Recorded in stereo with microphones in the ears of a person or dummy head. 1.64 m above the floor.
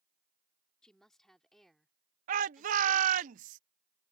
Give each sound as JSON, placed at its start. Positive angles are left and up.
{"t": 0.8, "sound": "a woman speaking", "side_deg": 5}
{"t": 2.3, "sound": "a shout", "side_deg": -50}